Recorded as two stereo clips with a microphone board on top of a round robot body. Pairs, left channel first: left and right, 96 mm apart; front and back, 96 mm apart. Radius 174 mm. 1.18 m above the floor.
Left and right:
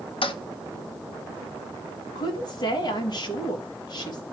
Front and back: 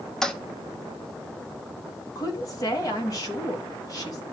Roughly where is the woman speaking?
Ahead left.